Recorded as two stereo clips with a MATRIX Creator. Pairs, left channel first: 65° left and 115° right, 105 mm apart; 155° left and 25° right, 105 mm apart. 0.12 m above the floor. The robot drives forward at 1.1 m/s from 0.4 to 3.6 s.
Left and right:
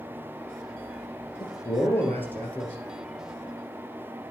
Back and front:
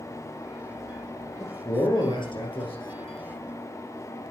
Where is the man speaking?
105° left, 1.8 m; by 2.8 s 145° left, 2.5 m.